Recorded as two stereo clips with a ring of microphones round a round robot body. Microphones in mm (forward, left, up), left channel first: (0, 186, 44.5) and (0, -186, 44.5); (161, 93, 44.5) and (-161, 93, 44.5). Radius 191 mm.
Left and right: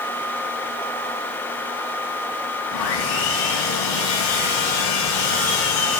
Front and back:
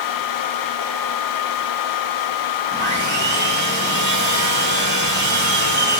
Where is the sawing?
125° left, 4 m.